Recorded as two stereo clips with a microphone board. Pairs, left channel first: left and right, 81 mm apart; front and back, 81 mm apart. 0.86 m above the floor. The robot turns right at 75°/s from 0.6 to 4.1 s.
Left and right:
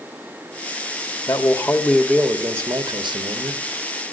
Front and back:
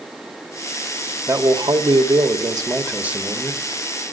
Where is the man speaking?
120° left, 1.5 m; by 3.6 s 60° right, 1.5 m.